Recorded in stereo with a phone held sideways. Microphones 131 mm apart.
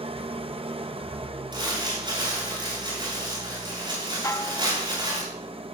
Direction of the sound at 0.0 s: 45° right (ahead or behind).